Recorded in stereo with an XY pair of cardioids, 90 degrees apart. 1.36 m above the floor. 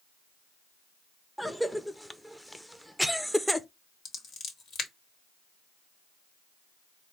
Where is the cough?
5° left, 0.6 m.